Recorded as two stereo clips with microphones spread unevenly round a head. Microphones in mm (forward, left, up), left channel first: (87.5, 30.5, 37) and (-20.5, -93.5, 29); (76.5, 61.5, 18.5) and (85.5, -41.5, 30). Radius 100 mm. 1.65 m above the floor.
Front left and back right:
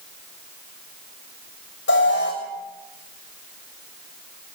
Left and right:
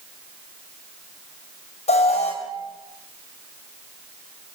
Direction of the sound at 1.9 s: 80° left.